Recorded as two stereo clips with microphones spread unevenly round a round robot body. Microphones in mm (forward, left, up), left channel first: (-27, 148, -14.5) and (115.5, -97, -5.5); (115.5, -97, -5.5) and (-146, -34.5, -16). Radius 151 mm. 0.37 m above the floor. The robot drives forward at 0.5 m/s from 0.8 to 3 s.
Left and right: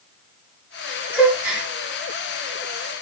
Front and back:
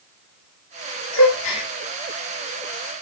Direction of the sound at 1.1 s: 25° left.